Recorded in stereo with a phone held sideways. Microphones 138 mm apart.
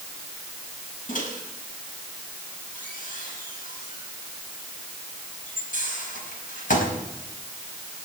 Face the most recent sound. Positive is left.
turn(degrees=75)  # may be behind; listen again after turning